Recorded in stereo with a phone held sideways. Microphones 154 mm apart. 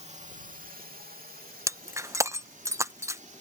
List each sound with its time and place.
0.0 s a drone: 45° right (ahead or behind); by 3.4 s 55° right (ahead or behind)
1.7 s breaking glass: 20° right (ahead or behind)